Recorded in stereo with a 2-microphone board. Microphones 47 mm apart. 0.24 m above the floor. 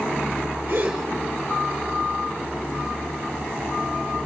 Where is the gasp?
50° right (ahead or behind), 6 m.